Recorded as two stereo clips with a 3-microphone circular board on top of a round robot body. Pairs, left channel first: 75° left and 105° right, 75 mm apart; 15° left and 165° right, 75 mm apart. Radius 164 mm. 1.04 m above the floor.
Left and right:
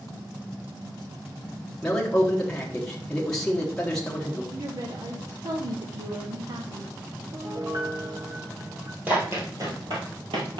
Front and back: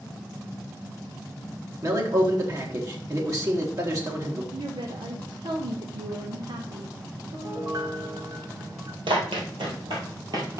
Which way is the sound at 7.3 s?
140° right.